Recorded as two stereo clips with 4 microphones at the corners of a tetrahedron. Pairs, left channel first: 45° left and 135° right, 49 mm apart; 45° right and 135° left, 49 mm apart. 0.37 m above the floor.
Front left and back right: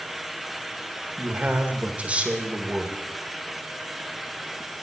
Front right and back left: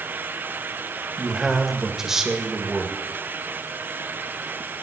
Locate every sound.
1.2 s a man speaking: 155° right, 1.6 m